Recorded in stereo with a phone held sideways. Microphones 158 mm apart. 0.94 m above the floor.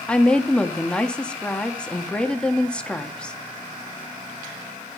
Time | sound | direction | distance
0.1 | a woman speaking | 5° left (ahead or behind) | 1.7 m